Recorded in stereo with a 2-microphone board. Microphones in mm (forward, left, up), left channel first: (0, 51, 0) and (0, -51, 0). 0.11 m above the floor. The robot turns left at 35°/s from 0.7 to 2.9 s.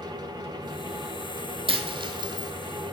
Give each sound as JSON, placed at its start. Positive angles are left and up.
{"t": 1.7, "sound": "a dropped coin", "side_deg": -55, "distance_m": 1.3}